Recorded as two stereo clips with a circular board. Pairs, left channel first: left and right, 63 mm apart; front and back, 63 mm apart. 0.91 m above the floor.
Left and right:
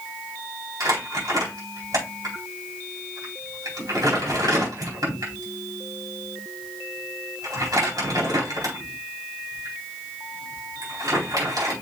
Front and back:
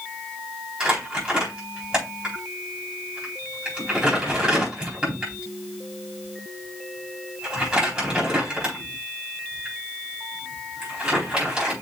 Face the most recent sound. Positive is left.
turn(degrees=-100)